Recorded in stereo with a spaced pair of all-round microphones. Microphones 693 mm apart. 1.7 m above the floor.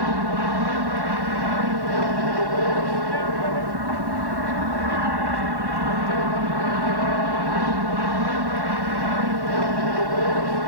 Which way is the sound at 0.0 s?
35° right (ahead or behind).